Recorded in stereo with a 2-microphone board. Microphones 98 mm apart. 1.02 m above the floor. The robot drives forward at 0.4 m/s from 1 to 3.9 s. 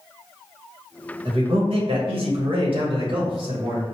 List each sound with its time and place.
1.2 s a man speaking: 60° right (ahead or behind), 1.2 m; by 3.9 s 55° right (ahead or behind), 1.2 m